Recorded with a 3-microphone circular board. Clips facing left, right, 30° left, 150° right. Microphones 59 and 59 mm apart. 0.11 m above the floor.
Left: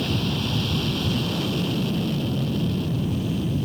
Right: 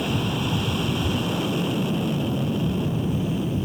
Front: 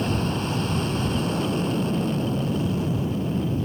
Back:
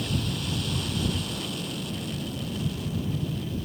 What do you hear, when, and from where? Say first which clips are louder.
0.0 s an aircraft: right 1 dB, front 6 dB; 20° right